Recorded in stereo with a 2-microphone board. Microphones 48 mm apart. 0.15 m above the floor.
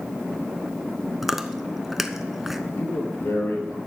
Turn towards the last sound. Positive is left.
turn(degrees=65)  # may be behind; listen again after turning